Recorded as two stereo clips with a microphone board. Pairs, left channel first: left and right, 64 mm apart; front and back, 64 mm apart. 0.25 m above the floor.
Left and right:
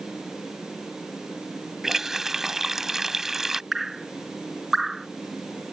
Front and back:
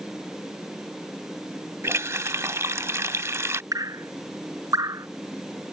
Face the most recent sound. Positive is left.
turn(degrees=-175)